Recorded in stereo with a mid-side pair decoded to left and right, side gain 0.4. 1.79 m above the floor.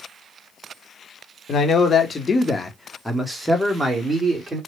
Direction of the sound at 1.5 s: 60° left.